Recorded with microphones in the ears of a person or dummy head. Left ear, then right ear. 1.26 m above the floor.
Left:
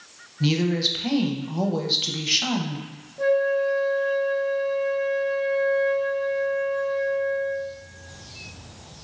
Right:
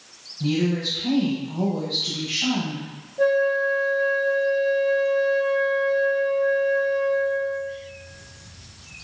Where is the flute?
5° right (ahead or behind), 0.7 m.